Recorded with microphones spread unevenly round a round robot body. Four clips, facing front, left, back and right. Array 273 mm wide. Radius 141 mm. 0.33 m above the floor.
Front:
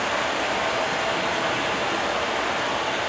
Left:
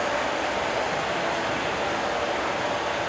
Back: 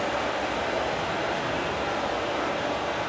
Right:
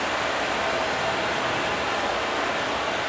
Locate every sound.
0.0 s running water: 30° left, 6 m